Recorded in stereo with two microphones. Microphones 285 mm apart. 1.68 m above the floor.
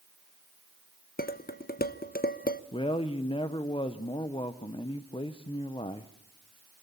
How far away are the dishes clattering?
About 0.9 m.